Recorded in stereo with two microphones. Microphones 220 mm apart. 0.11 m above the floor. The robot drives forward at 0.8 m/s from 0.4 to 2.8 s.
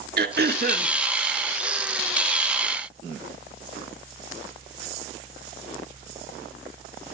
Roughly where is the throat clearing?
Right.